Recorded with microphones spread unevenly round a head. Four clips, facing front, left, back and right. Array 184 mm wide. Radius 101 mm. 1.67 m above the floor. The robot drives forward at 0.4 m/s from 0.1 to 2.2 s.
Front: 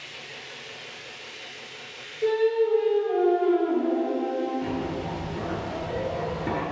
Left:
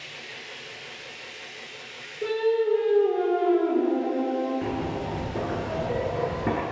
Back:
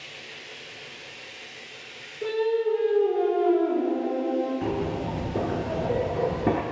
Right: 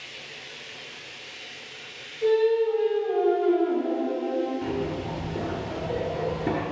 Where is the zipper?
Straight behind, 0.5 m.